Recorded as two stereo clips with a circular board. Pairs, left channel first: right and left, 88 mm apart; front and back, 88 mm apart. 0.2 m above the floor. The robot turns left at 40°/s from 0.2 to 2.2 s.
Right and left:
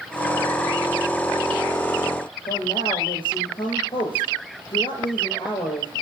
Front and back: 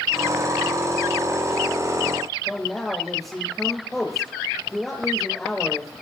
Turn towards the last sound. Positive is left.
turn(degrees=-90)